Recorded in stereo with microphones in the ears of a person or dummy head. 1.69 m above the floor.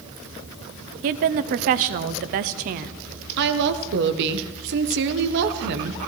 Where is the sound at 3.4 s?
60° right (ahead or behind), 0.9 m.